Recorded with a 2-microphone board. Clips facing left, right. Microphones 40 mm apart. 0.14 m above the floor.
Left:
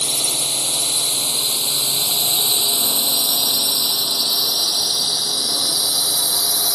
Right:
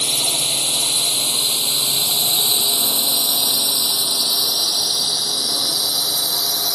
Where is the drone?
35° right (ahead or behind); by 6.8 s 5° left (ahead or behind).